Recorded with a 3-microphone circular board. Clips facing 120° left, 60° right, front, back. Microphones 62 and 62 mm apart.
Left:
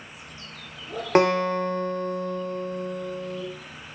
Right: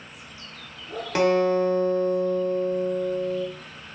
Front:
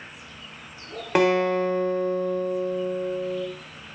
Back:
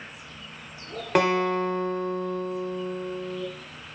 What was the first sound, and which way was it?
A guitar, 90° left.